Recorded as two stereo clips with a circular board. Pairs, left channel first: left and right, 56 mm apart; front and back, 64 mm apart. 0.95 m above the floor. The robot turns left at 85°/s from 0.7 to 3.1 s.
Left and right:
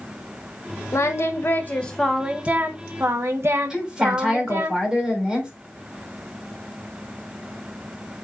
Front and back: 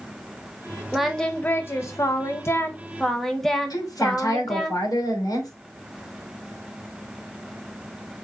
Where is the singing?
100° left, 1.2 m; by 4.7 s 85° right, 1.2 m.